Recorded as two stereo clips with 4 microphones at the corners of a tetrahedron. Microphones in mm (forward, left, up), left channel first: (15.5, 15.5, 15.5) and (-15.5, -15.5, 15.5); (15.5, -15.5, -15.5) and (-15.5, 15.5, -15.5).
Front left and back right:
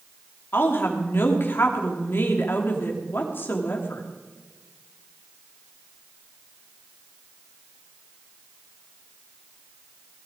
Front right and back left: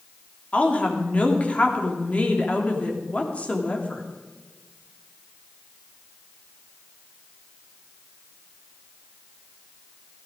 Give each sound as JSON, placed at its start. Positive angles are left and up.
{"t": 0.5, "sound": "a woman speaking", "azimuth_deg": 15, "distance_m": 3.0}